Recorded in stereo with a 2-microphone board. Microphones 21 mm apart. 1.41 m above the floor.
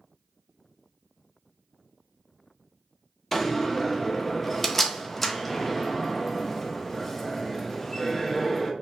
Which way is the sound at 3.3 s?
10° left (ahead or behind).